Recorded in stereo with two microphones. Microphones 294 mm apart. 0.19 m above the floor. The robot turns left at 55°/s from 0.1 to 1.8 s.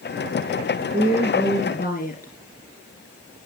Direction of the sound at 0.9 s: 165° right.